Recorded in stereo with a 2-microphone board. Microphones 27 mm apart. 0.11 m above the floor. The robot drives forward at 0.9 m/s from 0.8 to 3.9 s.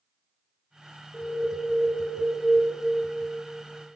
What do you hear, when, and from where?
1.1 s an alarm: 75° left (ahead or behind), 3 m; by 2.6 s 60° left (ahead or behind), 3 m